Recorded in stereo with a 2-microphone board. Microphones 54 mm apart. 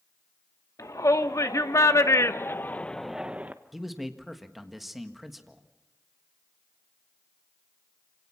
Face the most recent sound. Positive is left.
turn(degrees=0)  # may be behind; listen again after turning